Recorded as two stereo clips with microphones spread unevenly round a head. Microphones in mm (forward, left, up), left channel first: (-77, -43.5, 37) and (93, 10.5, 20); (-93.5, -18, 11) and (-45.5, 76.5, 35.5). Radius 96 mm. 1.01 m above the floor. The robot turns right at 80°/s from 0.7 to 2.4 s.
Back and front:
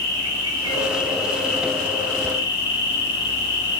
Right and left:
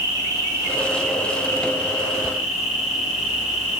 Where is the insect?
125° left, 5.5 m; by 3.8 s 100° right, 5.5 m.